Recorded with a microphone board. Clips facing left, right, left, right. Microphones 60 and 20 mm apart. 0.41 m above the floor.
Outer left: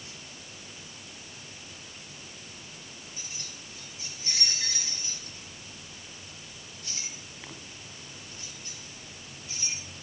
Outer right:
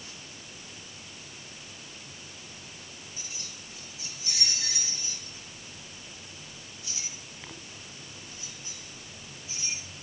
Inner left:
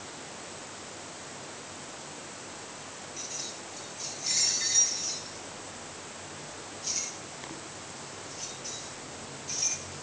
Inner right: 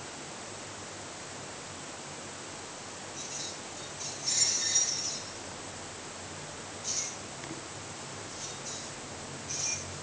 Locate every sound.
3.2 s keys jangling: 35° left (ahead or behind), 5 m; by 9.8 s 60° left (ahead or behind), 7 m